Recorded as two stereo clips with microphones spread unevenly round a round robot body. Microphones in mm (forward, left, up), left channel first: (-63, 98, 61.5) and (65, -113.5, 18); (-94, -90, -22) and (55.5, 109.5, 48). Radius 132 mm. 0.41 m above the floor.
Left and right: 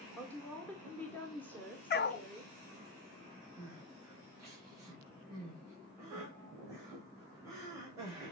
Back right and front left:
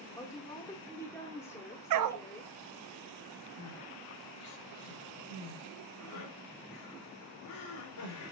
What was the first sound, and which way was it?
A woman speaking, 145° right.